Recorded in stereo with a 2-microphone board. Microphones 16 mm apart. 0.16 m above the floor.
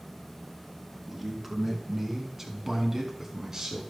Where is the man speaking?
10° right (ahead or behind), 2 m; by 3.8 s 30° right (ahead or behind), 1.7 m.